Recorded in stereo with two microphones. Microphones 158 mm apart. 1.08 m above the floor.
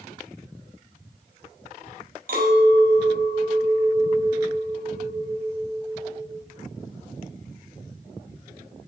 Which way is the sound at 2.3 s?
65° right (ahead or behind).